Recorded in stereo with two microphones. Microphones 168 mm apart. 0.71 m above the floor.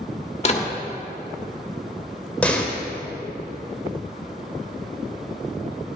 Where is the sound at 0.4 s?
40° left (ahead or behind), 1.4 m.